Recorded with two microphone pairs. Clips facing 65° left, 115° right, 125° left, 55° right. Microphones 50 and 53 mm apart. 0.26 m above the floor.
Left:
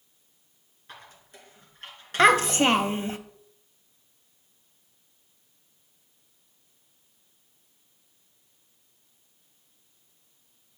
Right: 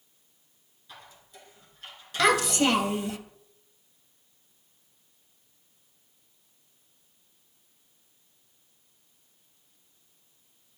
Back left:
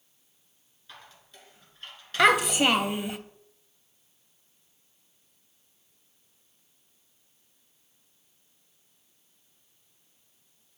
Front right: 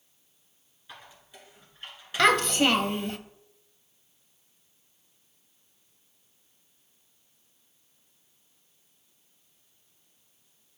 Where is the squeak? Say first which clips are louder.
Left 2 dB, front right 2 dB; 25° left, 2.0 m.